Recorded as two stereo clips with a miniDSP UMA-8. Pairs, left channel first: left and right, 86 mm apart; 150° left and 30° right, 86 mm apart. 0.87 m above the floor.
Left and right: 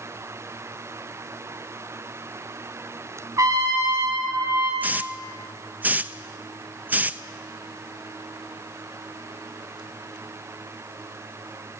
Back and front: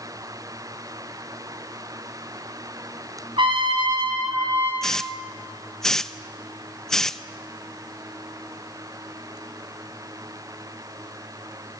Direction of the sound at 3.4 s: 40° right.